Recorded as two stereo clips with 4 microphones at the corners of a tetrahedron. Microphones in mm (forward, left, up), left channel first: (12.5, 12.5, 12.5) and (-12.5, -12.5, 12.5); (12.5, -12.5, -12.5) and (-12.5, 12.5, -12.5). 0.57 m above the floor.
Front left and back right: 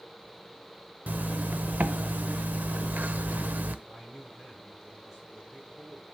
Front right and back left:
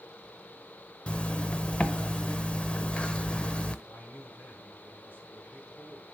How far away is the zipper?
About 0.8 m.